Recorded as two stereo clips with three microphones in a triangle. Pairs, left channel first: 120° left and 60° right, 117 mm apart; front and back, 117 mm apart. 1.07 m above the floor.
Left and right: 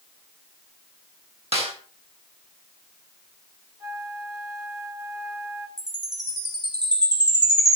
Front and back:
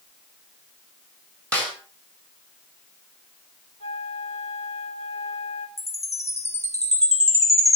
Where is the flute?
Straight ahead, 3 m.